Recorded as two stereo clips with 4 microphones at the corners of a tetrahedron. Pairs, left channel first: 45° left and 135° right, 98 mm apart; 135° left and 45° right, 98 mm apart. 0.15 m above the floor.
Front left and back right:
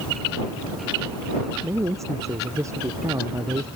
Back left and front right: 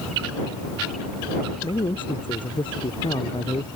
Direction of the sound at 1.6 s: 165° left.